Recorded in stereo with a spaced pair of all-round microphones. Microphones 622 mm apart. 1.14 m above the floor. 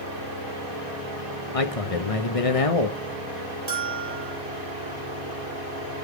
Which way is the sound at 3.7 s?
40° right (ahead or behind).